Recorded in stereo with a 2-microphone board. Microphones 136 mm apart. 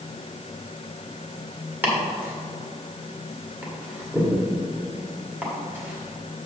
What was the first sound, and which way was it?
Chopping, 15° right (ahead or behind).